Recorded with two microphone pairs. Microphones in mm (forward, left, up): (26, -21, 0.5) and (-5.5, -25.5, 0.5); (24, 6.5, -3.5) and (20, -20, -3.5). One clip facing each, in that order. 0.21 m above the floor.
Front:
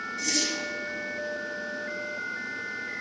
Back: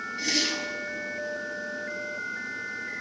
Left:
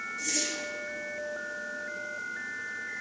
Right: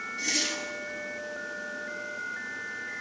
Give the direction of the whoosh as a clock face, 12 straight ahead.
4 o'clock.